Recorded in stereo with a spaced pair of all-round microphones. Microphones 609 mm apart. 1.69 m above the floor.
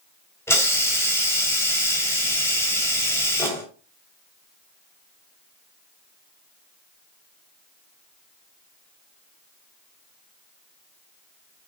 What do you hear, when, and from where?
0.5 s a hiss: 5° left (ahead or behind), 3 m